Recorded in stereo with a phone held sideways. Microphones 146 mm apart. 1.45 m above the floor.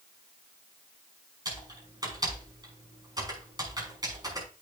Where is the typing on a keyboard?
25° right (ahead or behind), 5.5 m.